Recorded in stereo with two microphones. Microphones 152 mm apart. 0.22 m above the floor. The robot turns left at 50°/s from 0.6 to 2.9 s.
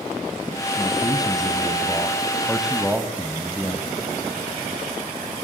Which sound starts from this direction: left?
A man speaking, at 0.8 s.